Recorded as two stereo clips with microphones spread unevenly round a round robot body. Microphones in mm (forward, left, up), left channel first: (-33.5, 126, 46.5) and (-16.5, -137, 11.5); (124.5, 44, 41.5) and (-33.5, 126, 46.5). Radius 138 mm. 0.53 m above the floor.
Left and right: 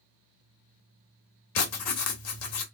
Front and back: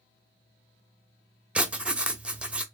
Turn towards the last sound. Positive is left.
turn(degrees=70)